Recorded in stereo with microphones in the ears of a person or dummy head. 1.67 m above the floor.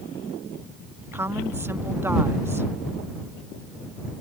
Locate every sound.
1.1 s a woman speaking: 15° right (ahead or behind)